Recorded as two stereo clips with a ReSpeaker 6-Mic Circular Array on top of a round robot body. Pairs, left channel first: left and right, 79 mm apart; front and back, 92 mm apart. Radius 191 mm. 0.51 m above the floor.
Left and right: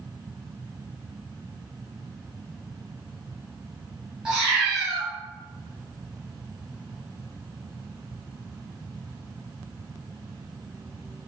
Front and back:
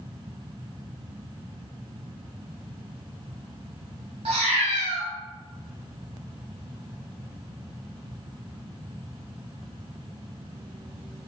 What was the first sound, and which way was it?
A cat meowing, 175° right.